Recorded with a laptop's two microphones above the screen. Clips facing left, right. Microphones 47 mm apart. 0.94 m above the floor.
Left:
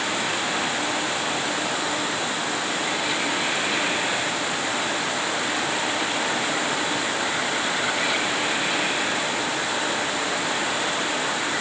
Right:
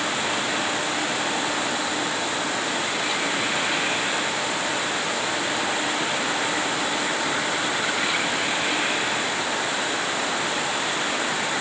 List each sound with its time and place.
Only background noise.